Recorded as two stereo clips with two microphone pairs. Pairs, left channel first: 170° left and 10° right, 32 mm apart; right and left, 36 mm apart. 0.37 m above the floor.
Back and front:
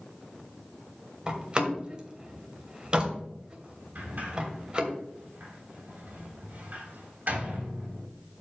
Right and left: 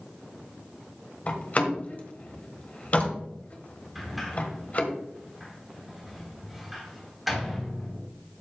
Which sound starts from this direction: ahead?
A sliding door, at 4.0 s.